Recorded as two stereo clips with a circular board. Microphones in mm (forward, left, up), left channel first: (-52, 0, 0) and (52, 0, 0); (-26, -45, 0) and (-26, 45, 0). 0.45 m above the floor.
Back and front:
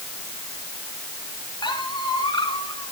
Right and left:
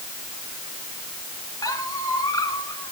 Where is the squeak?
140° right, 1.6 m.